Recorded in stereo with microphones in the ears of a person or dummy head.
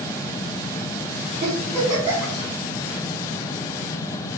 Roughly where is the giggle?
Centre.